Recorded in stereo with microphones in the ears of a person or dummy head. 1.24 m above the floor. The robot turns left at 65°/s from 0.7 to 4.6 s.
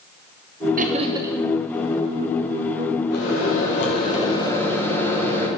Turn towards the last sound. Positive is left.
turn(degrees=15)